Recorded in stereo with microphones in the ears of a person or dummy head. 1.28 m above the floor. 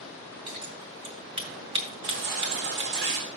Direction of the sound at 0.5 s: 30° right (ahead or behind).